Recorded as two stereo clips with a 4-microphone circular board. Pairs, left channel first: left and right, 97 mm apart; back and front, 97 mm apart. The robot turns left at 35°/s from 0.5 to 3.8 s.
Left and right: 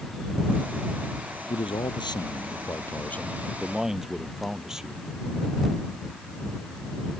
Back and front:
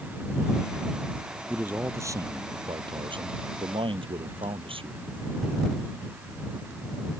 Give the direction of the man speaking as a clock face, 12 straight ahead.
10 o'clock.